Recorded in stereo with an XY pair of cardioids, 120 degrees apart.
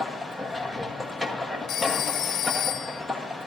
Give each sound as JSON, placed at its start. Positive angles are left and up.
{"t": 0.0, "sound": "a machine running", "azimuth_deg": 5, "distance_m": 1.5}
{"t": 1.7, "sound": "a phone ringing", "azimuth_deg": 65, "distance_m": 1.1}